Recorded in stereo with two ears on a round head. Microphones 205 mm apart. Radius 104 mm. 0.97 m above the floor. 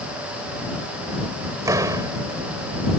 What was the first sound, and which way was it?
A door slam, 15° right (ahead or behind).